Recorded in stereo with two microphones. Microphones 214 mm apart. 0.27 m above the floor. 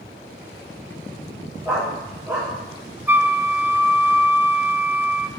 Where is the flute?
10° right (ahead or behind), 0.9 m.